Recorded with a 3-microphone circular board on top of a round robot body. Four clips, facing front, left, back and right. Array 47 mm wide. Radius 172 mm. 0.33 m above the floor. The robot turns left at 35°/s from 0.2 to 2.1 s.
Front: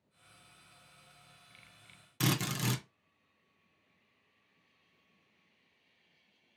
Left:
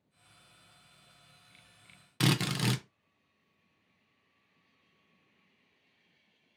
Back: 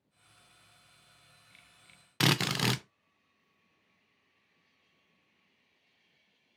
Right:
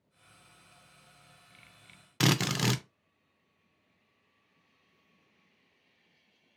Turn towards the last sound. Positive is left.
turn(degrees=-155)